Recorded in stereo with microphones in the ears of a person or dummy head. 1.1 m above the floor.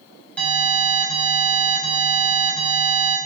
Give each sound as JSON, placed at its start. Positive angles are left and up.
{"t": 0.4, "sound": "an alarm", "side_deg": 10, "distance_m": 7.0}